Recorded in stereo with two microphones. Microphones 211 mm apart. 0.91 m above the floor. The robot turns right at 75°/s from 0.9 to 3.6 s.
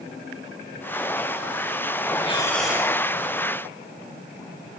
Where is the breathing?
150° left, 6.5 m; by 3.0 s 155° right, 6.5 m.